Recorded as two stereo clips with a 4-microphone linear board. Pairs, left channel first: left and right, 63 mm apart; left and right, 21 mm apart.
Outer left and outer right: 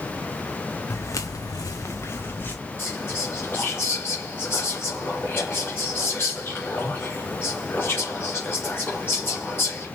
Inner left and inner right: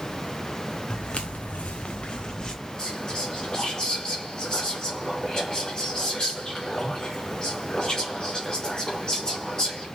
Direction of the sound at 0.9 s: 45° left (ahead or behind).